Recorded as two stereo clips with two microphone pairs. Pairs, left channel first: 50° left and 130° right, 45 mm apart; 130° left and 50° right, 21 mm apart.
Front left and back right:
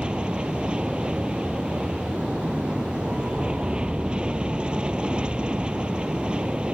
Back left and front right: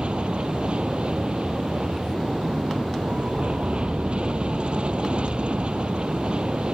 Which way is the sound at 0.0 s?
65° right.